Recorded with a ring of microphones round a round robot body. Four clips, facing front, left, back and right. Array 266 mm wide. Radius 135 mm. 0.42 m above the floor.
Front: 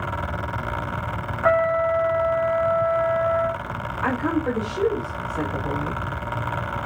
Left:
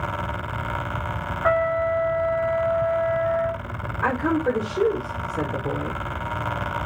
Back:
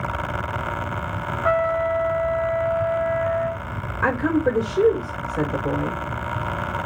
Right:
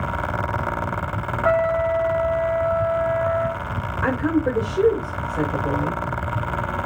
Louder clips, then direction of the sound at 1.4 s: Right 2 dB, front 2 dB; 25° left.